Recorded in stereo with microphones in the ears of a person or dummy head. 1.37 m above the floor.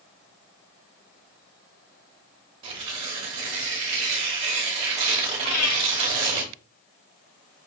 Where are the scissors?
No scissors in this recording.